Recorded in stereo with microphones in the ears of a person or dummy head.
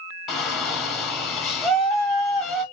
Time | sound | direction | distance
0.3 | a shout | centre (ahead or behind) | 1.0 m